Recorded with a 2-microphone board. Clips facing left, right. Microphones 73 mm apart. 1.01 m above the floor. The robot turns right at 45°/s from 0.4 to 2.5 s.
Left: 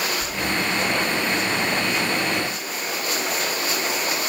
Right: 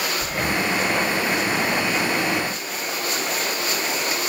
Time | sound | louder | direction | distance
0.2 | breathing | right 1 dB | 55° right (ahead or behind) | ?